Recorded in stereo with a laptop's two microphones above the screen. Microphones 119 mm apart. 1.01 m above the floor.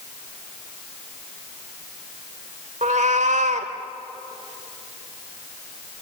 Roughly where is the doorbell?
No doorbell in this recording.